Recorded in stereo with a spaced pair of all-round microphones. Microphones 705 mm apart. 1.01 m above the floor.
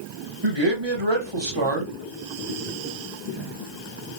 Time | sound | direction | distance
0.4 | a man speaking | 40° right (ahead or behind) | 1.2 m